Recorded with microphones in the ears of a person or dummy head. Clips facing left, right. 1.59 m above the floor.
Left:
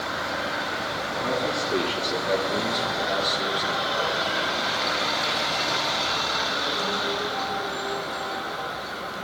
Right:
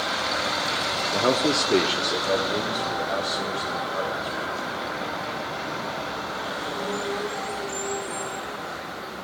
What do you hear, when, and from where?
1.1 s a man speaking: 75° right (ahead or behind), 0.9 m; by 4.8 s 30° left (ahead or behind), 5 m